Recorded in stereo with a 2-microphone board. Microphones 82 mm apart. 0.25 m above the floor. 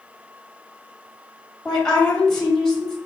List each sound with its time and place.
1.6 s a woman speaking: 5° left (ahead or behind), 1.0 m